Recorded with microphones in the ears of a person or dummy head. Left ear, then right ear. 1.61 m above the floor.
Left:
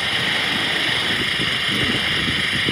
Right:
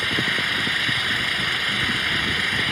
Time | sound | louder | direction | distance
0.0 | an engine running | left 2 dB | 5° right (ahead or behind) | ?